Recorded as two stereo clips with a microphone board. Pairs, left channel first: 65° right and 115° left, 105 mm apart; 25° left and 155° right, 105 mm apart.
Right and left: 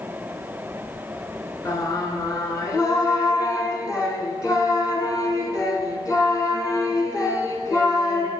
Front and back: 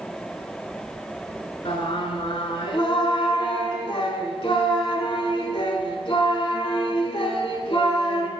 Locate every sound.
1.6 s singing: 10° right, 1.2 m